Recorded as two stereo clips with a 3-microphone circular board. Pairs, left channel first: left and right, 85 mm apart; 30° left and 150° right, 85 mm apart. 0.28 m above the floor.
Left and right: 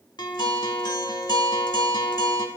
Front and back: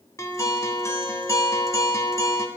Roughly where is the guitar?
Left.